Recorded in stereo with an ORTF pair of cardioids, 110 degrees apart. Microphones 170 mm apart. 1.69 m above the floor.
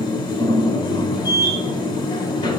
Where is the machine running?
30° left, 2.0 m.